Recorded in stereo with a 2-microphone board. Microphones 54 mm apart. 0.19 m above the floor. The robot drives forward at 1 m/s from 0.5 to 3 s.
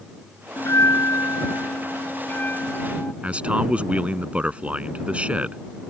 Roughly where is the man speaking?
Right.